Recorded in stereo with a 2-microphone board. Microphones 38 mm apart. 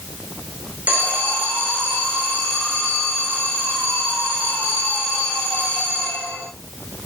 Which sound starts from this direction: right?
An alarm, at 0.9 s.